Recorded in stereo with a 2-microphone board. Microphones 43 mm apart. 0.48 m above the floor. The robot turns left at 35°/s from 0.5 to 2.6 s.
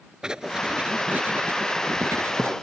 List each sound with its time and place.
0.2 s writing: 15° right; by 2.5 s 90° right